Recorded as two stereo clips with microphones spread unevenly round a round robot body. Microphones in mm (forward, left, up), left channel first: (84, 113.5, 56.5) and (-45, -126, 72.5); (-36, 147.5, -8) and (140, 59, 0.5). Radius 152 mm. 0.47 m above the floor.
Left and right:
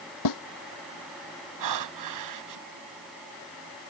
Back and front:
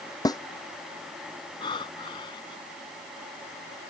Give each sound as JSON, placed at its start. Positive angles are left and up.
{"t": 0.2, "sound": "a snare drum", "azimuth_deg": 80}
{"t": 1.6, "sound": "breathing", "azimuth_deg": -130}